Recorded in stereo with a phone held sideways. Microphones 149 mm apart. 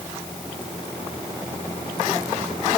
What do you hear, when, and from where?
Only background noise.